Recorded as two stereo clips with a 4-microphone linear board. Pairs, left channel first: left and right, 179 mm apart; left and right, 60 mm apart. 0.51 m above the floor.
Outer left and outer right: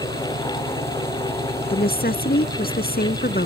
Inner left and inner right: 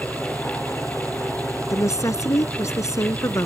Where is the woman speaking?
65° left (ahead or behind).